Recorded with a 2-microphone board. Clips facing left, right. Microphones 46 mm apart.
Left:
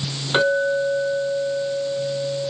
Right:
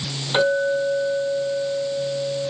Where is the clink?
20° left (ahead or behind), 4 m.